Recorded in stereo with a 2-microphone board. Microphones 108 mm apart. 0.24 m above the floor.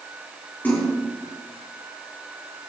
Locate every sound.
0.6 s a splash: 15° left (ahead or behind), 4 m